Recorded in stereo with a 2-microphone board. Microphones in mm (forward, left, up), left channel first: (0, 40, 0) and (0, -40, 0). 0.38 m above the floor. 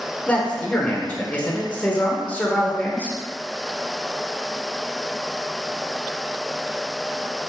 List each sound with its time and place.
0.3 s a man speaking: 20° left (ahead or behind), 0.9 m